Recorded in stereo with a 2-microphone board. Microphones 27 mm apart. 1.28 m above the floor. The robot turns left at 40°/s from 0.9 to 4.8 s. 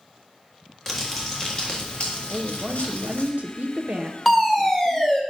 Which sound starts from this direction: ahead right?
A woman speaking, at 2.3 s.